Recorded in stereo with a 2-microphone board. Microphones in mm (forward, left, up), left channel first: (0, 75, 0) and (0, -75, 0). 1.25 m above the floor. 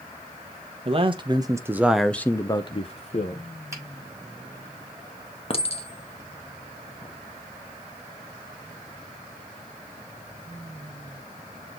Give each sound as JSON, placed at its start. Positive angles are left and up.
{"t": 0.8, "sound": "a man speaking", "side_deg": -40, "distance_m": 1.1}
{"t": 3.7, "sound": "a finger snap", "side_deg": -20, "distance_m": 4.5}
{"t": 5.5, "sound": "a clink", "side_deg": 40, "distance_m": 1.1}